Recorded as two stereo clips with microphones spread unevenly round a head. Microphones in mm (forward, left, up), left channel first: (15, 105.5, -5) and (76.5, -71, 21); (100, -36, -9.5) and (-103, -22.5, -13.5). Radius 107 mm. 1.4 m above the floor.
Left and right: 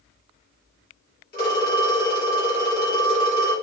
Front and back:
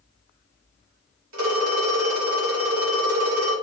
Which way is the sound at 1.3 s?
165° left.